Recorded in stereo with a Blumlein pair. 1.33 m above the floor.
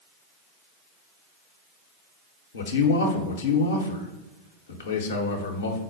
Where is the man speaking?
65° left, 0.8 m.